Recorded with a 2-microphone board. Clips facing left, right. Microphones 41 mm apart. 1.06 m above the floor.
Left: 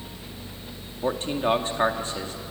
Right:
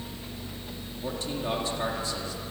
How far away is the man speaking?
About 2.5 m.